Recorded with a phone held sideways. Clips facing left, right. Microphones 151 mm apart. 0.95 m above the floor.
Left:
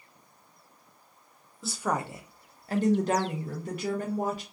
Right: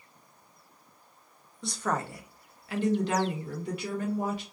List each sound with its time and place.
1.6 s a woman speaking: centre (ahead or behind), 0.6 m; by 4.4 s 45° left (ahead or behind), 1.2 m